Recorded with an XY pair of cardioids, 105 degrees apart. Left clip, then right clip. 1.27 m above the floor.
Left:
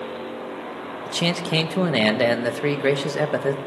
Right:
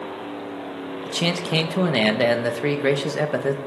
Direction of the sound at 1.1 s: 5° left.